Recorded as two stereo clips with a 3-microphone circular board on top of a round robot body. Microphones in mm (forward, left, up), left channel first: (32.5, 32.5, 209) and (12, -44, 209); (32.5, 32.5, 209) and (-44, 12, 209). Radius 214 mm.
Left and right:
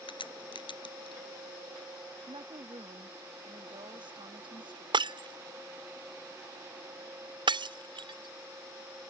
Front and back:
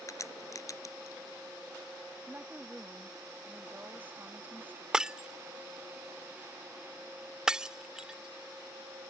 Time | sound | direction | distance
0.1 | a crack | 65° left | ?
2.3 | a woman speaking | 100° right | ?
4.9 | breaking glass | 85° right | ?